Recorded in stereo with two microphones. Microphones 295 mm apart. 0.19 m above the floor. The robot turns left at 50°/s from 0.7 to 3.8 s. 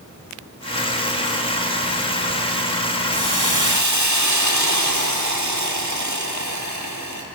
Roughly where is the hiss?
Right.